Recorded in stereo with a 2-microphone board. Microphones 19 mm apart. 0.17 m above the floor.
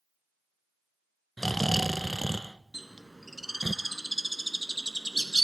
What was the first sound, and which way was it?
Snoring, centre (ahead or behind).